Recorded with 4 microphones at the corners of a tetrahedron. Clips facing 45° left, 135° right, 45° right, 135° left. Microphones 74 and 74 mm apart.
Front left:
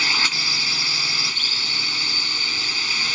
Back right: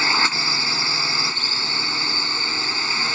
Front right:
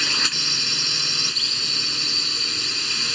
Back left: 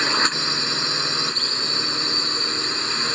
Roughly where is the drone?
Behind.